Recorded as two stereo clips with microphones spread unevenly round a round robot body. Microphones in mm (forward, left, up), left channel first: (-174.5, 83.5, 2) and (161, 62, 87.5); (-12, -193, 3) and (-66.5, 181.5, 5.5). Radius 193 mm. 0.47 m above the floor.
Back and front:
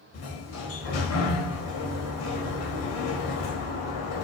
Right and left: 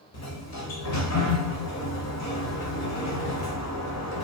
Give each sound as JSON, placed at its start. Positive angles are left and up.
{"t": 0.1, "sound": "a sliding door", "azimuth_deg": -130, "distance_m": 0.7}